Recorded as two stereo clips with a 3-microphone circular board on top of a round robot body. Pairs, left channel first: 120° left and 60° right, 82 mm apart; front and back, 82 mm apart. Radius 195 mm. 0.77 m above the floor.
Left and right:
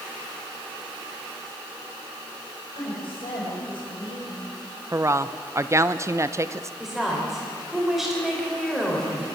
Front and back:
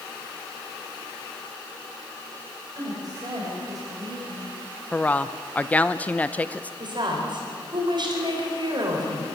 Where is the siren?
I don't hear a siren.